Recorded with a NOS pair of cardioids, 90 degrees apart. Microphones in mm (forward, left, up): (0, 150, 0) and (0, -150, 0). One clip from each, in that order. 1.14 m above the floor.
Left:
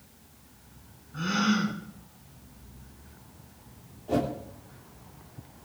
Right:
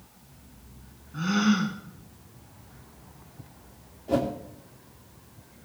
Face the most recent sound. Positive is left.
turn(degrees=-20)